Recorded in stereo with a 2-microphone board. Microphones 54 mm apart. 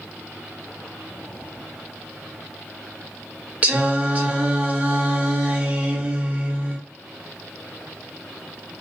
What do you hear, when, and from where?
3.6 s singing: 30° right (ahead or behind), 0.8 m